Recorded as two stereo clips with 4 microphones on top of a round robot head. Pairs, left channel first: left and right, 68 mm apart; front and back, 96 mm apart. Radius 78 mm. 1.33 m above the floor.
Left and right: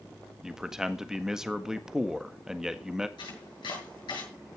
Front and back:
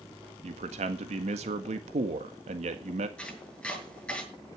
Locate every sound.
0.4 s a man speaking: 170° right, 1.6 m
3.2 s chopping: 80° left, 7 m